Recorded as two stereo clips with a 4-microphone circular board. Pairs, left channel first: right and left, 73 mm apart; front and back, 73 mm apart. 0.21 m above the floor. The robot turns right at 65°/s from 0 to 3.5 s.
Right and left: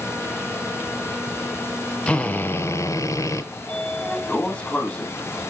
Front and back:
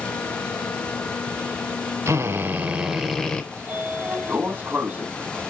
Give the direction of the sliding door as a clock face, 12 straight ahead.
5 o'clock.